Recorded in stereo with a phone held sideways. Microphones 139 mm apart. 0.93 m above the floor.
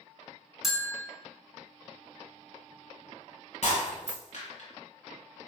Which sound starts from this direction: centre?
A bell, at 0.6 s.